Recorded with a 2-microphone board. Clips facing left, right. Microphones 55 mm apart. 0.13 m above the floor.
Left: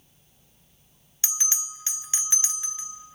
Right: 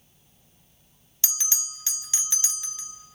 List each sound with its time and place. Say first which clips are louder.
1.2 s a bell: left 1 dB; 25° left (ahead or behind), 0.9 m